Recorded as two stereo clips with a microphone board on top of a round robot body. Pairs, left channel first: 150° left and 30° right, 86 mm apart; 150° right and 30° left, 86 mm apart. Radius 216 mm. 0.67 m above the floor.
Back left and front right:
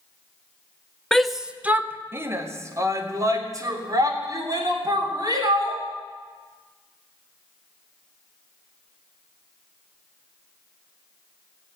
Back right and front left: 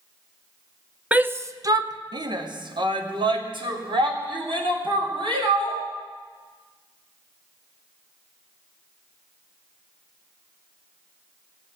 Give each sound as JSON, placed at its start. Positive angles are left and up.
{"t": 1.1, "sound": "a shout", "azimuth_deg": 75, "distance_m": 1.1}